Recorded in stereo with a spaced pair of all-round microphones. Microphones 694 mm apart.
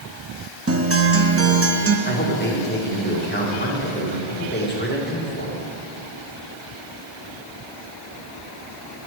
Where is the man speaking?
15° left (ahead or behind), 1.4 m.